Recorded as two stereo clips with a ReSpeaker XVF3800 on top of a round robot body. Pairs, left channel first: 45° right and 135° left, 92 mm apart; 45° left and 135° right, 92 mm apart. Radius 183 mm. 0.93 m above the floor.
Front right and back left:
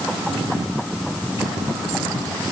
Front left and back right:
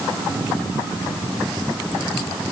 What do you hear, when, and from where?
Only background noise.